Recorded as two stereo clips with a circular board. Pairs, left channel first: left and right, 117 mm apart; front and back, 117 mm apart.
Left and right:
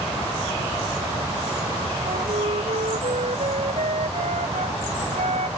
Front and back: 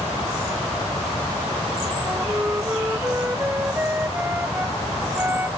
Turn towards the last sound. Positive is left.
turn(degrees=-110)